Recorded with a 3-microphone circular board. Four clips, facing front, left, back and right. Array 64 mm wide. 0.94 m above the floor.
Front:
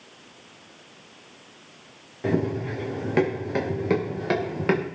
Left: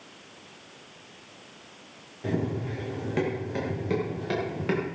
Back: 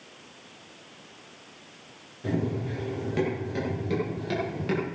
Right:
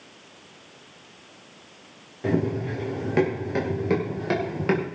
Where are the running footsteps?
25° right, 6.5 m.